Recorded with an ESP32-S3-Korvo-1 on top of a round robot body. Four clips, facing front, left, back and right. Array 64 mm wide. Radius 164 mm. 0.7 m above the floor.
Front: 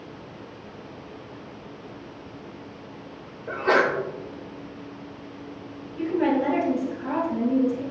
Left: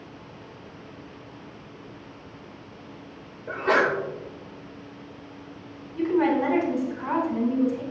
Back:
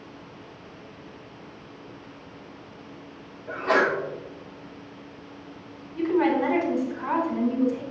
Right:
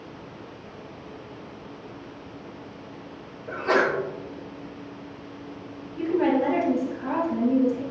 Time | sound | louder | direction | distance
3.5 | a sneeze | even, front 1 dB | 50° left | 3 m
6.0 | a woman speaking | even, back 1 dB | 140° left | 3.5 m